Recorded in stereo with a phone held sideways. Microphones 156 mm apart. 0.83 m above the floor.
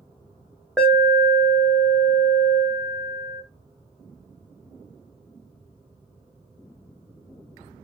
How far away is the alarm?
About 0.6 m.